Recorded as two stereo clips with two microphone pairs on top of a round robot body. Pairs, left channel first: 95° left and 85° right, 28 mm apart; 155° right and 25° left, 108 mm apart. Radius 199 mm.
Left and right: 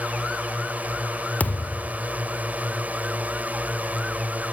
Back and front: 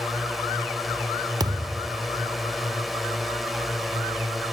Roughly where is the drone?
Ahead right.